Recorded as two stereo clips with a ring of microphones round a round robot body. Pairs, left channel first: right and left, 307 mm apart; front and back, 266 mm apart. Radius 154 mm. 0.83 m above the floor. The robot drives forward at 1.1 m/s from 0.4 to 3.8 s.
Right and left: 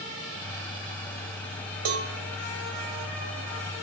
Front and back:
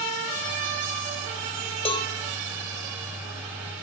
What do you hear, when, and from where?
1.9 s a cowbell: 70° left, 1.5 m; by 2.1 s 80° left, 1.5 m